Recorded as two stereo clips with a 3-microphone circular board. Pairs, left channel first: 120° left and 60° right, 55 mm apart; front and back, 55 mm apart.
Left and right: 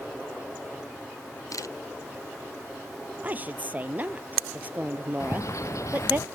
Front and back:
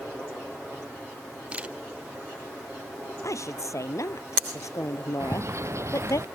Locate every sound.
1.5 s a camera shutter: 115° left
3.2 s a woman speaking: straight ahead
5.2 s a bird: 145° left